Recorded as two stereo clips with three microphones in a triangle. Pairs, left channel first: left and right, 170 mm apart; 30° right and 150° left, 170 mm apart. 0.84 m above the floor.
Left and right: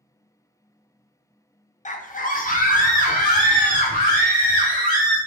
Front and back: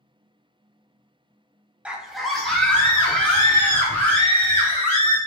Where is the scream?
70° left, 0.5 m; by 5.2 s 50° left, 3 m.